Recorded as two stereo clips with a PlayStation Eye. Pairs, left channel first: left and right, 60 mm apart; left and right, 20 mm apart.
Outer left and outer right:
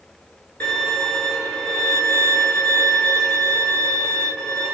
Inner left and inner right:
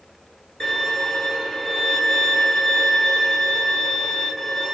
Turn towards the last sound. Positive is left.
turn(degrees=20)  # may be behind; listen again after turning